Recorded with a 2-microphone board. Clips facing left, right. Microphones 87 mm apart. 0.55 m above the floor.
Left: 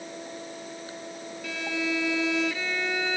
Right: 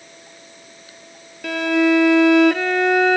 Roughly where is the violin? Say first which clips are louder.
Right 14 dB; right.